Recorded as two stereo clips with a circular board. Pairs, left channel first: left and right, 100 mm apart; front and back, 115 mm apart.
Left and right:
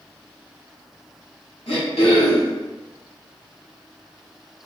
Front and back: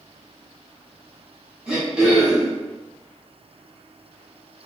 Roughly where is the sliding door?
I don't hear a sliding door.